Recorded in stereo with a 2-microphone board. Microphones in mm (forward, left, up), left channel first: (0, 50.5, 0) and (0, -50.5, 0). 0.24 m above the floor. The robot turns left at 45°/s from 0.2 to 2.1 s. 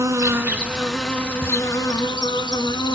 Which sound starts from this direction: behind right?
An insect, at 0.0 s.